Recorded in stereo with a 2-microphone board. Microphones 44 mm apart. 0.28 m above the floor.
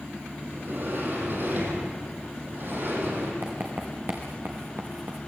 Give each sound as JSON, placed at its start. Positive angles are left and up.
{"t": 0.5, "sound": "a sliding door", "side_deg": -50, "distance_m": 5.0}
{"t": 3.4, "sound": "writing", "side_deg": -55, "distance_m": 4.0}